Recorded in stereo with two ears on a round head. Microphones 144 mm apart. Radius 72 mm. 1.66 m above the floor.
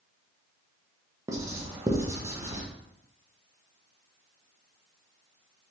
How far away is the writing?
About 0.6 m.